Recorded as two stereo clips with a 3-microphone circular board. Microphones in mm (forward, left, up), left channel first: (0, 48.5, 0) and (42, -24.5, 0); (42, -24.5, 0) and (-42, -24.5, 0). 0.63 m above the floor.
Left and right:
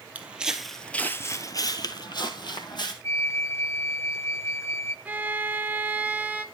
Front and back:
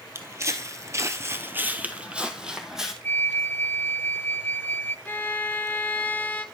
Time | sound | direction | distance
0.1 | footsteps | 130° right | 1.0 m
3.0 | a flute | 60° left | 0.5 m
5.0 | a violin | 20° right | 0.7 m